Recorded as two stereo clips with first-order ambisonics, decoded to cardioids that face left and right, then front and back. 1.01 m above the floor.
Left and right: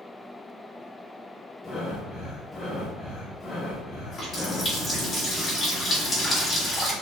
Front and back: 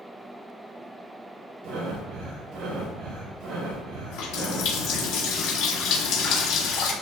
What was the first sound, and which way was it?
Breathing, 155° left.